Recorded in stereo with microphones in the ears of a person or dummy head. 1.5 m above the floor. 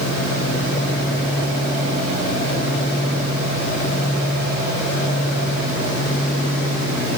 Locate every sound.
Only background noise.